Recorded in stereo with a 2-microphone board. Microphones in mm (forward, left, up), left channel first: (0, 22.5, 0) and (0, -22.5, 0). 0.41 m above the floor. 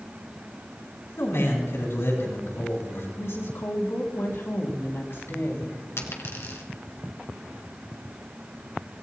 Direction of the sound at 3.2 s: 65° left (ahead or behind).